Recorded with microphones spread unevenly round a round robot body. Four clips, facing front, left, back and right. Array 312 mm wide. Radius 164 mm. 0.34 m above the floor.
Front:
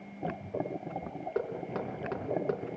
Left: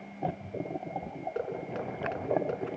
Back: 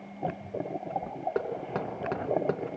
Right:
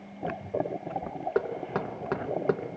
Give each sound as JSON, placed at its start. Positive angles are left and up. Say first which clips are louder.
{"t": 1.4, "sound": "knocking", "louder": "right 6 dB, even", "azimuth_deg": -135, "distance_m": 3.5}